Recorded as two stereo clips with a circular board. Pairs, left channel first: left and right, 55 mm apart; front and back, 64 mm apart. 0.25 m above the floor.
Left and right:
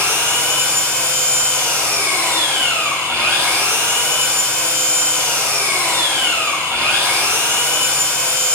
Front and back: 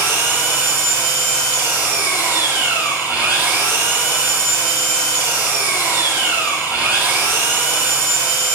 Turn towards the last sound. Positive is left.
turn(degrees=-130)